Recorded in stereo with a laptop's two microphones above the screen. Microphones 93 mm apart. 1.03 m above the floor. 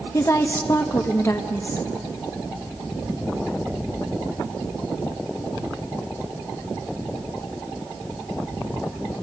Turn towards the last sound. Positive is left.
turn(degrees=35)  # may be behind; listen again after turning